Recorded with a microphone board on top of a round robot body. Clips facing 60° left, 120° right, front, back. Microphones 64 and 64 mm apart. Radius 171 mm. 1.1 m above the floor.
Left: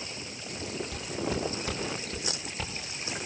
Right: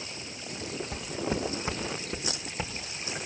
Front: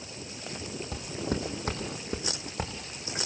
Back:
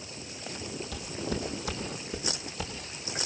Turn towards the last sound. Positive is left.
turn(degrees=-45)